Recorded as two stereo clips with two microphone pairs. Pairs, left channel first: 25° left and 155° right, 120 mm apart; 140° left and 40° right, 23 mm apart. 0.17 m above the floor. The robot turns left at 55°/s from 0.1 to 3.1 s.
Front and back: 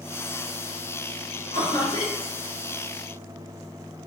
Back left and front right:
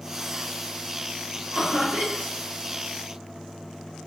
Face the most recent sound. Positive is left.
turn(degrees=-90)